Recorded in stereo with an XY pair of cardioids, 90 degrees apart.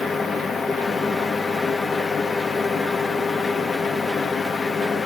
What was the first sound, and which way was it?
A fan, 55° left.